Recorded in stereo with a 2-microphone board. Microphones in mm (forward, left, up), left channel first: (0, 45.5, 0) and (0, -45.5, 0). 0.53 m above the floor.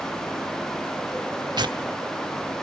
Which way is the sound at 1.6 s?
50° right (ahead or behind).